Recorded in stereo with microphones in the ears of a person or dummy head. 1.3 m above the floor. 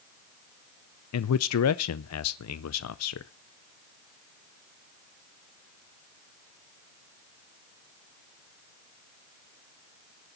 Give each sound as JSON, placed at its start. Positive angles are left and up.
{"t": 1.1, "sound": "a man speaking", "side_deg": 80, "distance_m": 0.6}